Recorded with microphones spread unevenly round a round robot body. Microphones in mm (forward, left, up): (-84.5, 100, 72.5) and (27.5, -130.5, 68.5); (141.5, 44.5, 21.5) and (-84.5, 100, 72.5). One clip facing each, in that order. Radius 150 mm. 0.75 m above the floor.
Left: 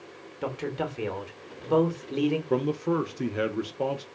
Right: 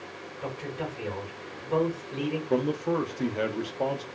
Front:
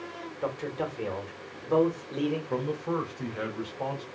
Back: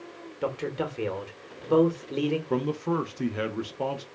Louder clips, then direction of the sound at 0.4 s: Left 4 dB, back 3 dB; 110° left.